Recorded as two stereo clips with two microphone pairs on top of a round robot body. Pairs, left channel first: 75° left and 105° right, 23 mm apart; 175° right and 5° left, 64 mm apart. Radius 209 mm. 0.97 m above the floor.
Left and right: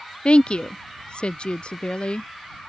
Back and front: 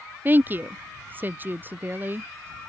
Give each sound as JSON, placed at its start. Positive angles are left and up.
{"t": 0.2, "sound": "a woman speaking", "azimuth_deg": 60}